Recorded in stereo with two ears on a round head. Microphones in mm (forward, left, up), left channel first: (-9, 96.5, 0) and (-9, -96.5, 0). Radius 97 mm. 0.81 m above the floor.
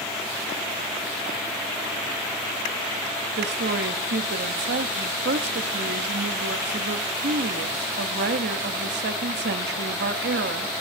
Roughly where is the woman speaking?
Right.